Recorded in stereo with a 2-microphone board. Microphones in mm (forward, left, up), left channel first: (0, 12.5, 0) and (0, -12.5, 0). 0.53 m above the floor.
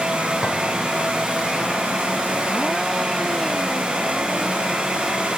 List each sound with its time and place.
0.4 s a clink: 35° right (ahead or behind), 3.5 m